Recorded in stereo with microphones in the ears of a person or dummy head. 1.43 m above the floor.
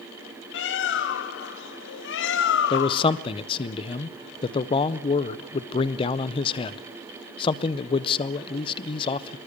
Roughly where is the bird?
Left.